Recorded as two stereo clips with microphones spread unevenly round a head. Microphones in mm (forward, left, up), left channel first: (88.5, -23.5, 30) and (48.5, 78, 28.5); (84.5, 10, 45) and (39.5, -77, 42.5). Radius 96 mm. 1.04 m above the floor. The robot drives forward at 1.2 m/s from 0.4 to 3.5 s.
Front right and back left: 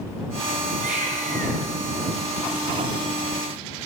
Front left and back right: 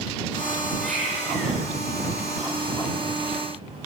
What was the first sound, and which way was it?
A baby crying, 150° left.